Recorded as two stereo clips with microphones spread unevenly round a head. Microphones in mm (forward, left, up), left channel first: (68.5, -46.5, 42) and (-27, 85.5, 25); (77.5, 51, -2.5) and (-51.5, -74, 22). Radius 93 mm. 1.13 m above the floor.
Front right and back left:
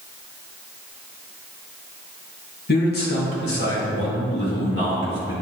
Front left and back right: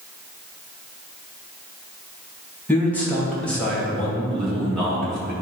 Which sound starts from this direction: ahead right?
A man speaking, at 2.7 s.